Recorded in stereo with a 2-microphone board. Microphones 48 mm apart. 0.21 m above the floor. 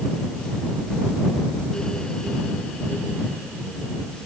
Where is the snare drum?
I don't hear a snare drum.